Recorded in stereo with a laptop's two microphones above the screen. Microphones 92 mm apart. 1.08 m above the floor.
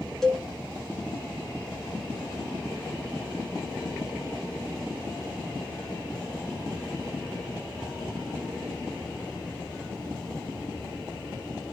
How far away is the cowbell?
About 0.5 m.